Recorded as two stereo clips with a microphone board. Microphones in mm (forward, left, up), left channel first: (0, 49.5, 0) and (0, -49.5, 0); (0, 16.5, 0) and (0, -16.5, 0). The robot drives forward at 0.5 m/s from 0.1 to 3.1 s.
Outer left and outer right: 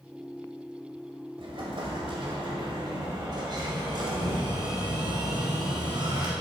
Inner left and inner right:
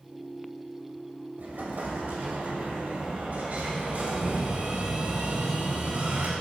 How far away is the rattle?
No rattle in this recording.